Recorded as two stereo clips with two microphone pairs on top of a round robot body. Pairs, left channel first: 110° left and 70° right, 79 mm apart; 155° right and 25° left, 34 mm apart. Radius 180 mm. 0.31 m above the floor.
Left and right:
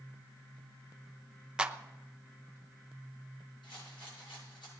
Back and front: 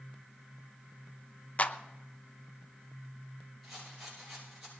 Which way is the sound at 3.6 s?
115° left.